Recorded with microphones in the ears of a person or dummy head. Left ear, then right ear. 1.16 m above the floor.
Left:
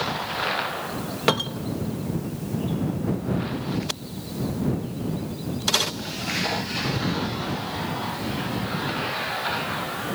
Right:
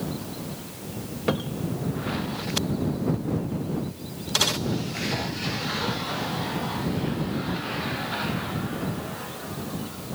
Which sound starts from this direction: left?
A cupboard door, at 1.3 s.